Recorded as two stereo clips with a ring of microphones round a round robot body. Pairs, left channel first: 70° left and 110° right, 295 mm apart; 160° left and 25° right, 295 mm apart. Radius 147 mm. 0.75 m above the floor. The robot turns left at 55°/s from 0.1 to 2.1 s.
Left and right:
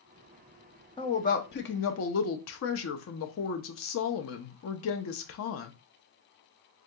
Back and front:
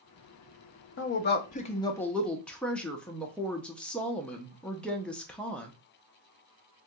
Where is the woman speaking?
135° left, 0.5 m; by 5.7 s 75° left, 0.5 m.